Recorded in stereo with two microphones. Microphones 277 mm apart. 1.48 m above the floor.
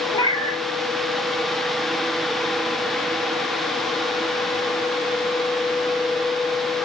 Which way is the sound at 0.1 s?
15° left (ahead or behind).